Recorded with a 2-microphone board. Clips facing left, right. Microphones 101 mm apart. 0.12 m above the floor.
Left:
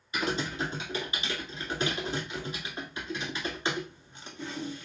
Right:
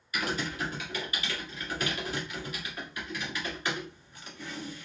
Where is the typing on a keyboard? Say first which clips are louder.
Left 2 dB; 25° left (ahead or behind), 1.5 m.